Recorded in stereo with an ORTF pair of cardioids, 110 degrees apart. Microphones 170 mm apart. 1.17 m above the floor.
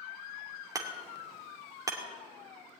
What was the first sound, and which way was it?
Hammering, 20° right.